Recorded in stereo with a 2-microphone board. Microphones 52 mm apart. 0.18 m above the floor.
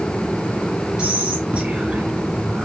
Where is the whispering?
15° right (ahead or behind), 1.7 m.